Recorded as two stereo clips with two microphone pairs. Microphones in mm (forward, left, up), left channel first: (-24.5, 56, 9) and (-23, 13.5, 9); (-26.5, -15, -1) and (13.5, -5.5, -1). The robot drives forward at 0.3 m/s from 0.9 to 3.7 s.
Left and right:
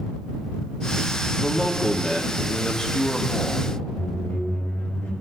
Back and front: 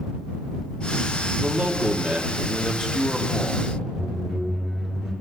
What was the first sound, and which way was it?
A man speaking, 35° left.